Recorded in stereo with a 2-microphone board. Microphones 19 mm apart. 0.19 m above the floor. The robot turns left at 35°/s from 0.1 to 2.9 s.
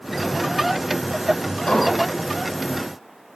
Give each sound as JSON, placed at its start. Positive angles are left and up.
{"t": 1.7, "sound": "an explosion", "side_deg": 55, "distance_m": 3.0}